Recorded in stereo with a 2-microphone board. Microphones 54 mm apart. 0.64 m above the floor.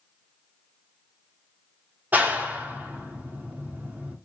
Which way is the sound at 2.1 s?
30° right (ahead or behind).